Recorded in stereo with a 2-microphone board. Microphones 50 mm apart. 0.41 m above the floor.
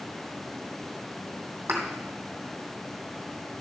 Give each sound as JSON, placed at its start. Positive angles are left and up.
{"t": 1.7, "sound": "a thud", "side_deg": -45, "distance_m": 2.5}